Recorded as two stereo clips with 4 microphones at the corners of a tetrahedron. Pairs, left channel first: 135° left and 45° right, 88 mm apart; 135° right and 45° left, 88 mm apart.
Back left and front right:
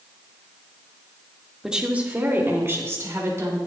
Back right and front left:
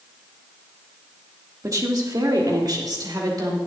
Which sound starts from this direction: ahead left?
A woman speaking, at 1.6 s.